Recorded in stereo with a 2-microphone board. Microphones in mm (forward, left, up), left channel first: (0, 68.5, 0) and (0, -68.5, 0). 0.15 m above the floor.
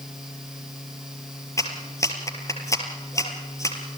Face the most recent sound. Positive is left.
turn(degrees=20)  # may be behind; listen again after turning